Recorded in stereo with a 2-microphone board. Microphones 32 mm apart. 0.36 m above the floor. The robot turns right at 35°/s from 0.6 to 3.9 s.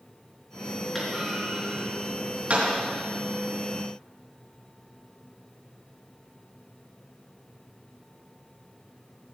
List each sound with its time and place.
0.9 s a clunk: 5° left (ahead or behind), 5.5 m; by 2.7 s 55° right (ahead or behind), 5.5 m